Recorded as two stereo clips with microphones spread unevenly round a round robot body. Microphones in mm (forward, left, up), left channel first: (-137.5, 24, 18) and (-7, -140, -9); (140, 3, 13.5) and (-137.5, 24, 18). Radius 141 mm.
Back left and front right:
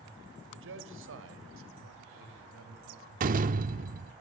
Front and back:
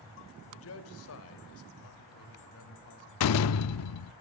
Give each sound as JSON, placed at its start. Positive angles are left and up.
{"t": 0.5, "sound": "a man speaking", "azimuth_deg": -40, "distance_m": 3.0}
{"t": 3.2, "sound": "a door slam", "azimuth_deg": -10, "distance_m": 0.6}